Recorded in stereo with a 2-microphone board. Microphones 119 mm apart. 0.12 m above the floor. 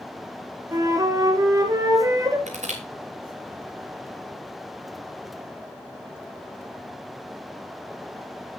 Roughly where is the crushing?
Right.